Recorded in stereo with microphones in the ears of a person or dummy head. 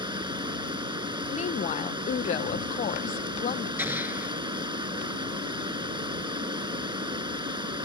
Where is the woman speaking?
40° left (ahead or behind).